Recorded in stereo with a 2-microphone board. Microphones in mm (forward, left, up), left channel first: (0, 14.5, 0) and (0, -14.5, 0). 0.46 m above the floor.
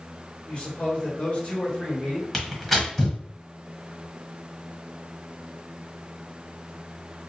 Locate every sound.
0.5 s a man speaking: 40° left (ahead or behind), 1.8 m; by 2.2 s 25° left (ahead or behind), 1.2 m
2.3 s tearing paper: 5° left (ahead or behind), 1.1 m